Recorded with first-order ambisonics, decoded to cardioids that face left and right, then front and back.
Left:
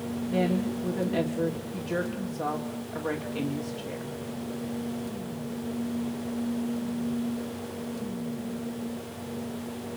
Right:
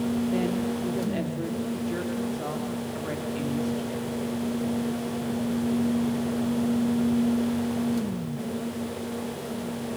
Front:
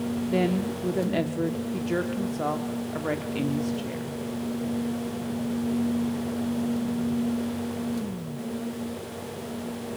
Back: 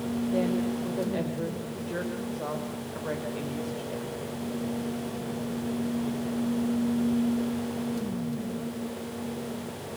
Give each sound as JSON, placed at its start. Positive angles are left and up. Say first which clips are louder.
{"t": 0.3, "sound": "a woman speaking", "louder": "even, front 2 dB", "azimuth_deg": 5, "distance_m": 2.0}